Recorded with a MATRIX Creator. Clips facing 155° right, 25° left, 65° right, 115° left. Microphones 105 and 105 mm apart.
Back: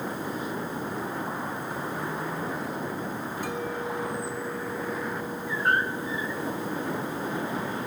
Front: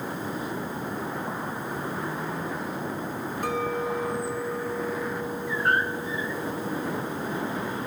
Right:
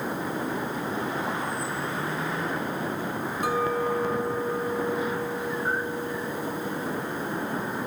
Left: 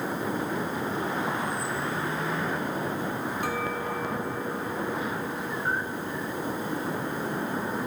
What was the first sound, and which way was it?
A clink, straight ahead.